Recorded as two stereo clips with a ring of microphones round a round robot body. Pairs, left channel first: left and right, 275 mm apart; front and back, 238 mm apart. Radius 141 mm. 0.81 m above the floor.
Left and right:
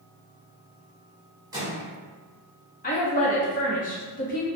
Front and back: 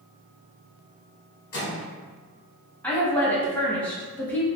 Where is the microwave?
15° right, 1.1 m.